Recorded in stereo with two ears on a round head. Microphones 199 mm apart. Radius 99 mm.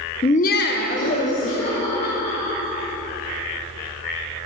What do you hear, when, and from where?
0.2 s laughter: 20° left (ahead or behind), 0.6 m; by 2.9 s 25° left (ahead or behind), 3.5 m